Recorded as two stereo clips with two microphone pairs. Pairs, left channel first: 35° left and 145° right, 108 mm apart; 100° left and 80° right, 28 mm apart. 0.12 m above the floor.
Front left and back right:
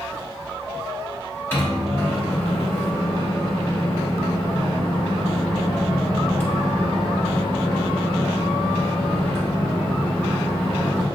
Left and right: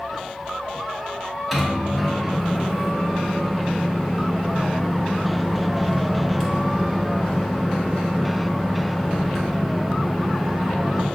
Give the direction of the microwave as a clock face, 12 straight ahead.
12 o'clock.